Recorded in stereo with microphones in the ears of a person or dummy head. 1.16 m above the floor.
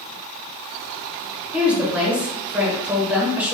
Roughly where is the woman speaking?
Centre.